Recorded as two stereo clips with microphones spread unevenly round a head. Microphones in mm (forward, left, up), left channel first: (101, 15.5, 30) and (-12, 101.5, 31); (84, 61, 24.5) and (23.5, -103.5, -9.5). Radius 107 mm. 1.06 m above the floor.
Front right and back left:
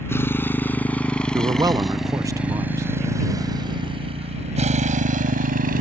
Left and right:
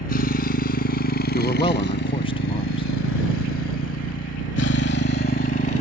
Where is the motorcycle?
35° left; by 5.8 s 130° left.